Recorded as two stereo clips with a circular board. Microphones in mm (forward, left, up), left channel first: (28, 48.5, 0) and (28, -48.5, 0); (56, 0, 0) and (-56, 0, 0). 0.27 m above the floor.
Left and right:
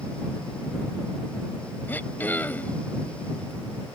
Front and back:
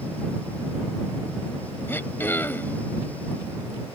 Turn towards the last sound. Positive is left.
turn(degrees=45)